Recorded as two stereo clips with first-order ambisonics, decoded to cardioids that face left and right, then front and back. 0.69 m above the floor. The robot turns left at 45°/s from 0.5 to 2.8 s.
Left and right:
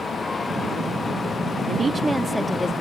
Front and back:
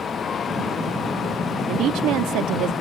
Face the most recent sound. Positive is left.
turn(degrees=160)